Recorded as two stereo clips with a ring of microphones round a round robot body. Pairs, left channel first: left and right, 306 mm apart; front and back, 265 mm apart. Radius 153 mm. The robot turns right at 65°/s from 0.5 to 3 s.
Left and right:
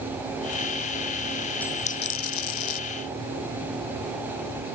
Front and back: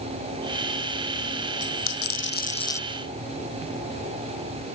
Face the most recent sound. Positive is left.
turn(degrees=95)